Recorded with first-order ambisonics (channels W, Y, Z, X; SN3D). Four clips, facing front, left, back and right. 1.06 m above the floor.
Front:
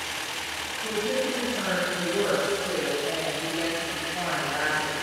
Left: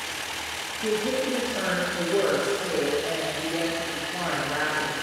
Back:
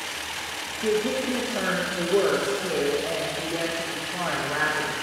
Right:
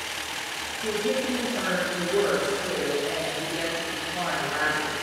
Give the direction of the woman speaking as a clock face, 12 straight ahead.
7 o'clock.